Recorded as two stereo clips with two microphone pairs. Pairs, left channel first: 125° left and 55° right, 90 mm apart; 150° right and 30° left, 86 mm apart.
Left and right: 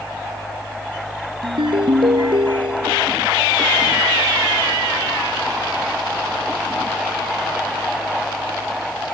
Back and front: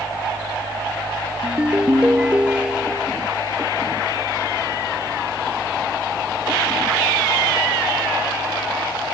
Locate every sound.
1.4 s a ringtone: 50° right